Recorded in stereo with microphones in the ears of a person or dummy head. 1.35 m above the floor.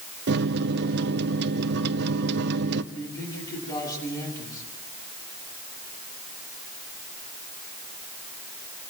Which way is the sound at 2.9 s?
20° left (ahead or behind).